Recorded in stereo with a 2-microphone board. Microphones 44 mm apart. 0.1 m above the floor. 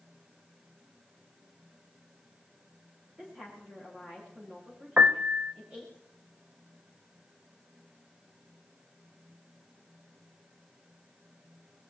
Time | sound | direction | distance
3.2 | a woman speaking | 20° right (ahead or behind) | 8 m
5.0 | a piano | 30° right (ahead or behind) | 0.7 m